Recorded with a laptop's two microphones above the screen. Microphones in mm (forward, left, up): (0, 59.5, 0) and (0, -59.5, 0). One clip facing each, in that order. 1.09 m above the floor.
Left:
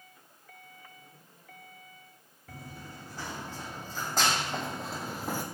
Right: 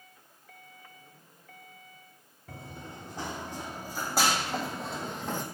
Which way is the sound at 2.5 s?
25° right (ahead or behind).